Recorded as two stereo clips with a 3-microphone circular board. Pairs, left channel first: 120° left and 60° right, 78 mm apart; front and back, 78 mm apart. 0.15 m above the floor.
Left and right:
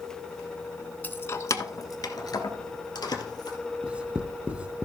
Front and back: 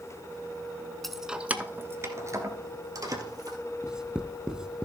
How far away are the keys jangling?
About 0.8 m.